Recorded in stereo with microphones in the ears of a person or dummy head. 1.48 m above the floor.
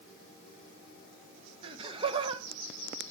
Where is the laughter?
30° right (ahead or behind), 1.2 m.